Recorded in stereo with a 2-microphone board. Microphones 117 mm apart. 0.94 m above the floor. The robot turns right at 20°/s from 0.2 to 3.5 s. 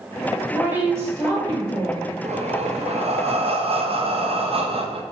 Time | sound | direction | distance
0.5 | a woman speaking | 165° right | 3 m
2.2 | breathing | 65° right (ahead or behind) | 0.6 m